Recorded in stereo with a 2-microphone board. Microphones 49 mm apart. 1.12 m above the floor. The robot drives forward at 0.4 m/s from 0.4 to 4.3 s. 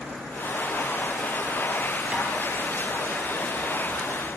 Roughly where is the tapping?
Centre.